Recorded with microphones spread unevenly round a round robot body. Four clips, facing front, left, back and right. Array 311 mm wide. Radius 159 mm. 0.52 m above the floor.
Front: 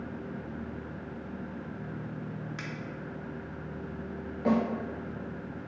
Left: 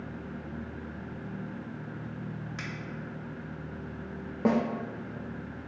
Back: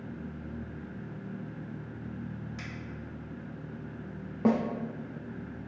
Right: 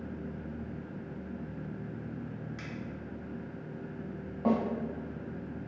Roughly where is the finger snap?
Ahead left.